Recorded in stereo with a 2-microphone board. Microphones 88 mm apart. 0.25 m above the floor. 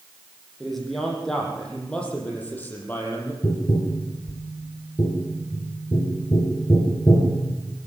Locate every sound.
0.6 s a man speaking: centre (ahead or behind), 8 m; by 3.3 s 25° left (ahead or behind), 6.5 m
3.4 s tapping: 50° left (ahead or behind), 4.5 m